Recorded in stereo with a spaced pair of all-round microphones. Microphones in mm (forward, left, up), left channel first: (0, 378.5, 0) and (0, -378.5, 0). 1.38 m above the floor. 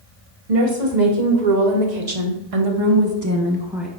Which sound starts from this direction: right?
A woman speaking, at 0.5 s.